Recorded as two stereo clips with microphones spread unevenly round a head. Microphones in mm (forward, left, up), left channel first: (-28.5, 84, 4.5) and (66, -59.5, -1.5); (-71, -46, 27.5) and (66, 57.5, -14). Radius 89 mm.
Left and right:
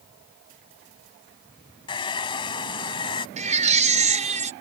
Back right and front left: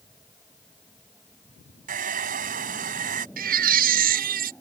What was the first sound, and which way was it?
A hair dryer, 75° left.